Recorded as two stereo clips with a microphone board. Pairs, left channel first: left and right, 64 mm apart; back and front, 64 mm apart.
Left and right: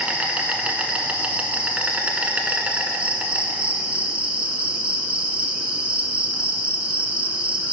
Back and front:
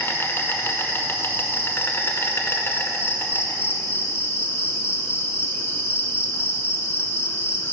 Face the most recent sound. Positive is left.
turn(degrees=-150)